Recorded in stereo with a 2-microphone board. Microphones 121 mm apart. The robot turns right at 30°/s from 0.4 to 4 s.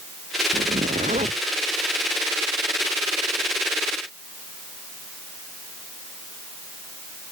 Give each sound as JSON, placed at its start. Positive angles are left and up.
{"t": 0.5, "sound": "a zipper", "side_deg": -85}